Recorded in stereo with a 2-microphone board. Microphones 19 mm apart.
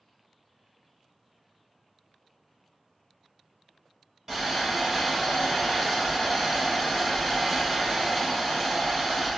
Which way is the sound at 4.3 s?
30° right (ahead or behind).